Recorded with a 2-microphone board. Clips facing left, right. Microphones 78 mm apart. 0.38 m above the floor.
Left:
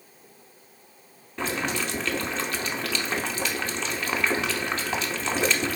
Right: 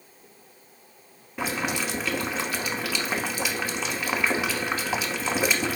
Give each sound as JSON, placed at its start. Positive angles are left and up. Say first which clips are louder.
{"t": 1.4, "sound": "boiling", "louder": "even", "side_deg": -10, "distance_m": 0.8}